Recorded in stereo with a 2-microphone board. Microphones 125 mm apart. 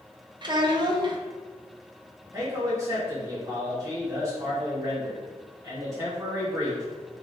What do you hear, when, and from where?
0.4 s a child speaking: 40° right (ahead or behind), 0.6 m
2.3 s a man speaking: 25° right (ahead or behind), 1.7 m